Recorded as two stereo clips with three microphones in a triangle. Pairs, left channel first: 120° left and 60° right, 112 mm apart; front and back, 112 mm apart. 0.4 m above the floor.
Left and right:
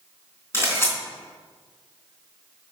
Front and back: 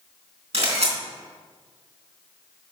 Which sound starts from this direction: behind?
A camera shutter, at 0.5 s.